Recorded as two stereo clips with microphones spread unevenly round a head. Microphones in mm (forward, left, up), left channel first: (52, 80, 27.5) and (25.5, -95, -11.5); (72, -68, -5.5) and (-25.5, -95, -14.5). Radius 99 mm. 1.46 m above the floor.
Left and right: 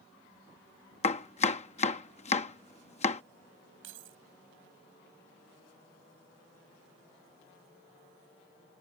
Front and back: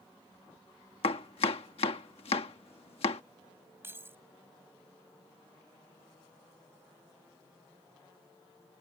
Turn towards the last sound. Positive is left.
turn(degrees=-100)